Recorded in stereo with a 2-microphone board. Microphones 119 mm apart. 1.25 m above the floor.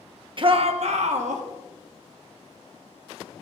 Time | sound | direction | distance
0.4 | a shout | 45° right (ahead or behind) | 0.9 m